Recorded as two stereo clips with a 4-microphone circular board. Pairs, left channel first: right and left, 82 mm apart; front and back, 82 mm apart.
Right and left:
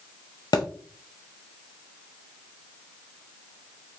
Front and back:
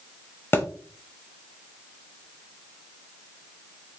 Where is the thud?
60° right, 0.7 m.